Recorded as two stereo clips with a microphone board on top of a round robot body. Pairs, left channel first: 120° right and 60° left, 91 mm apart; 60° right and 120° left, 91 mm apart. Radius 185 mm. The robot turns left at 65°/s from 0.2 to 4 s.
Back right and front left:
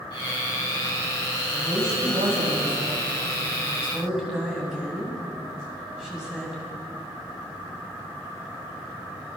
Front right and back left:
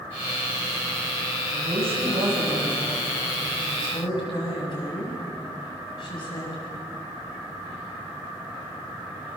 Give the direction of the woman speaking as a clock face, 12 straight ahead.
7 o'clock.